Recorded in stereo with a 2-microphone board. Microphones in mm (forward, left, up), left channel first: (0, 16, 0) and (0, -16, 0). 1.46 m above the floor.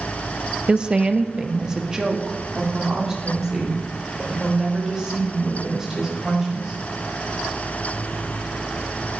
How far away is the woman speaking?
About 0.8 m.